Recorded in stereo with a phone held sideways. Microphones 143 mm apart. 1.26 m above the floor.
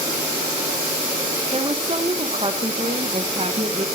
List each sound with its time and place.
1.5 s a woman speaking: 40° right (ahead or behind), 0.8 m